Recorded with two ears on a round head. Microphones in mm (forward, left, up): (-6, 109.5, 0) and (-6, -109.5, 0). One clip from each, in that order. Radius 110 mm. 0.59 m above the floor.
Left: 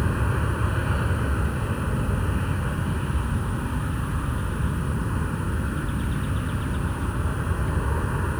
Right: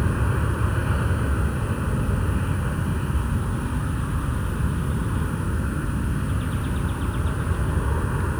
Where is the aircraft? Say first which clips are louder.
Even; 10° left (ahead or behind).